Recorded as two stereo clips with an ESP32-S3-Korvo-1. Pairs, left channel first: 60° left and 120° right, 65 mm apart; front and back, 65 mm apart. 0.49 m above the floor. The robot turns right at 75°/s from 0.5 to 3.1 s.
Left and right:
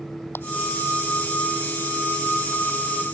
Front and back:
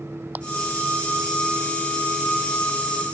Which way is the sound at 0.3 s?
115° left.